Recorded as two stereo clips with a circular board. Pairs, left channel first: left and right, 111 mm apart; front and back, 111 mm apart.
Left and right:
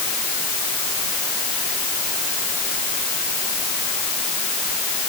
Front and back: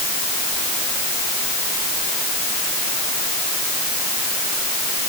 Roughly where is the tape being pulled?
No tape being pulled in this recording.